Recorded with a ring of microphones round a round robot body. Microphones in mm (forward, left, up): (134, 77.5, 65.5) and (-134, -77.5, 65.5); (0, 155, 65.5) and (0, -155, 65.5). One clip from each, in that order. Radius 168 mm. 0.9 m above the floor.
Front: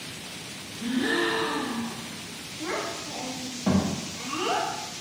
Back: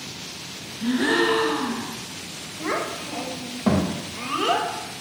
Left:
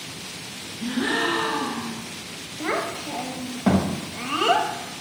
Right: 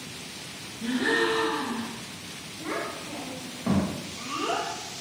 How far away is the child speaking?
About 0.6 m.